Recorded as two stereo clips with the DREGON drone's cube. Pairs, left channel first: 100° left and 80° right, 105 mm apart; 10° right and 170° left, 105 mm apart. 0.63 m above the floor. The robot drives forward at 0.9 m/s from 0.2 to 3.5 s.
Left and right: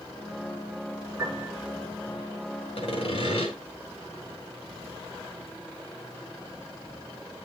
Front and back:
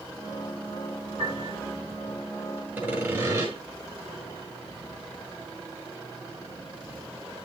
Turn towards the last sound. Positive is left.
turn(degrees=115)